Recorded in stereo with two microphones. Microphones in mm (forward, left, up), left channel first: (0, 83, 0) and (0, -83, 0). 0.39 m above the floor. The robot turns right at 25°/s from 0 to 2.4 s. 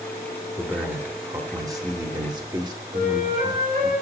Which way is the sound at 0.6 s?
10° right (ahead or behind).